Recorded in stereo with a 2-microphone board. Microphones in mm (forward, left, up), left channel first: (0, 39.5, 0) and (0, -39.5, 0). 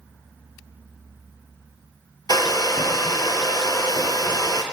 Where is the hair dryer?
55° left (ahead or behind), 1.7 m.